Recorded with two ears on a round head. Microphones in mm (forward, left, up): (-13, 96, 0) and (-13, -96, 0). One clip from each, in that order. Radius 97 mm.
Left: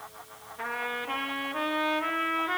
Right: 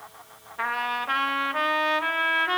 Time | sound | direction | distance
0.6 | a trumpet | 50° right (ahead or behind) | 1.0 m